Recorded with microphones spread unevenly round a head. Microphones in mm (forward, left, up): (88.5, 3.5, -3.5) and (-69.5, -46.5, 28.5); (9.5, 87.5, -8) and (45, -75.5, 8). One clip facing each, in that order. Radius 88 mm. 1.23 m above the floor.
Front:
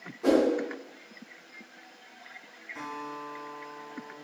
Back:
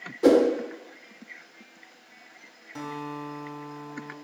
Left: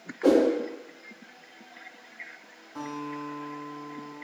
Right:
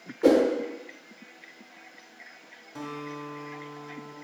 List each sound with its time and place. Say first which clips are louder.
0.2 s a whoosh: back 5 dB, right 1 dB; 150° right, 0.7 m
2.8 s a guitar: back 5 dB, left 2 dB; 145° right, 0.8 m